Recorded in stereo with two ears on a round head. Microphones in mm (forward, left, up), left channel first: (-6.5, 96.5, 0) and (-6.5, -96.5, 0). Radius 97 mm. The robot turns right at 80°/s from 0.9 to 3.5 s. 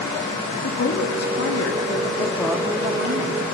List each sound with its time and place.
0.6 s a woman speaking: 50° left, 2 m; by 3.4 s 105° right, 2 m